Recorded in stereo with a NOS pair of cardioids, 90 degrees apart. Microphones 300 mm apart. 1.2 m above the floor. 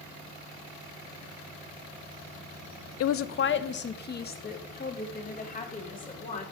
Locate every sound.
3.0 s a woman speaking: 55° left, 0.6 m; by 6.4 s 25° left, 3.5 m